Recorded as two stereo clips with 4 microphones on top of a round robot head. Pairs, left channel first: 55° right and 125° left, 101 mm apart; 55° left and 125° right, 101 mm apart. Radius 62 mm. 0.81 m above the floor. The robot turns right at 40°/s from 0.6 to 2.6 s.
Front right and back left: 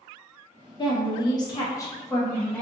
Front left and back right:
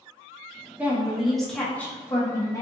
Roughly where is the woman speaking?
Ahead right.